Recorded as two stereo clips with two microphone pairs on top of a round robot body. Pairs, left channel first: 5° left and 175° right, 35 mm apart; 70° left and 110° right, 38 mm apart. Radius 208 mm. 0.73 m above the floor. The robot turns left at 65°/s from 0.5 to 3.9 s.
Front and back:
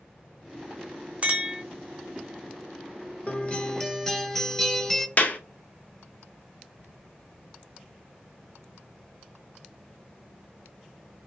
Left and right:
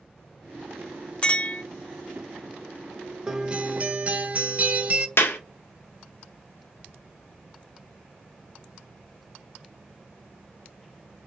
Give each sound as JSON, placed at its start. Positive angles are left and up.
{"t": 1.2, "sound": "a clink", "azimuth_deg": 135, "distance_m": 1.0}
{"t": 3.3, "sound": "a guitar", "azimuth_deg": -40, "distance_m": 1.0}
{"t": 5.2, "sound": "a clap", "azimuth_deg": 50, "distance_m": 0.6}